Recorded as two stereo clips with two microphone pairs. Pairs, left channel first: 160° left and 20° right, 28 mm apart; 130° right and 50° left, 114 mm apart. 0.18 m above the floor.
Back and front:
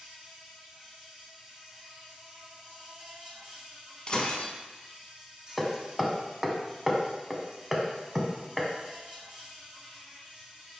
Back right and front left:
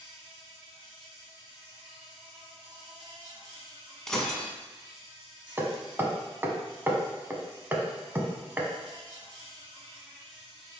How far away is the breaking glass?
About 0.7 m.